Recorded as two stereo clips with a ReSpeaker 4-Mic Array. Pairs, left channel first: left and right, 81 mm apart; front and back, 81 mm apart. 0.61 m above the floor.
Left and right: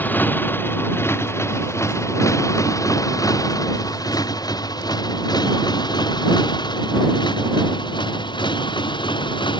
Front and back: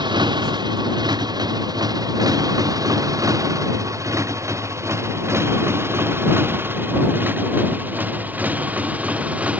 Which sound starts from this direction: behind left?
A motorcycle, at 0.0 s.